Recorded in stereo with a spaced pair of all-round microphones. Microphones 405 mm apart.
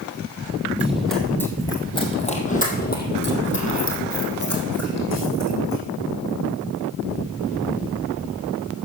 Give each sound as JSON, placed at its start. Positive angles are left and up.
{"t": 0.8, "sound": "running footsteps", "side_deg": -5, "distance_m": 2.0}